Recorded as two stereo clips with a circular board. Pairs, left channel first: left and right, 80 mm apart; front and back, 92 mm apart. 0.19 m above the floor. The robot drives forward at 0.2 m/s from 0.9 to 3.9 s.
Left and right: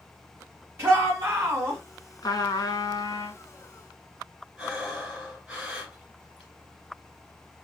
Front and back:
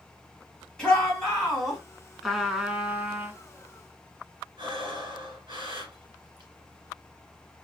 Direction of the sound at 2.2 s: 90° left.